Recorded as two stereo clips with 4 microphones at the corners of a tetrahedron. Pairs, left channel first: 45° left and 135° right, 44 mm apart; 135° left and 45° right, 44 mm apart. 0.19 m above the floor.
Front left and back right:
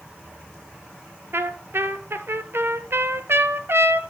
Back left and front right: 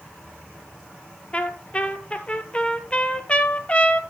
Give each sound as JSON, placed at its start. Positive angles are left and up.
{"t": 1.3, "sound": "a trumpet", "azimuth_deg": -160, "distance_m": 0.9}